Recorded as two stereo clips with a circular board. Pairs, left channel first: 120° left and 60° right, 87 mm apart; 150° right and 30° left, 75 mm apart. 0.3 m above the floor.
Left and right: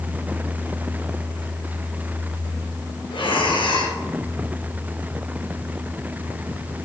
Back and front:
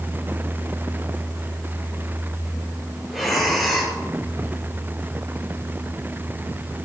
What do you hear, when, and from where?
3.1 s breathing: 120° left, 2 m